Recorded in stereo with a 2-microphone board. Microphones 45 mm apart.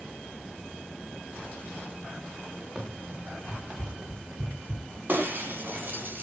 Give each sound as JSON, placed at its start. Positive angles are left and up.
{"t": 2.8, "sound": "running footsteps", "side_deg": -30, "distance_m": 6.0}
{"t": 5.1, "sound": "breaking glass", "side_deg": -50, "distance_m": 3.5}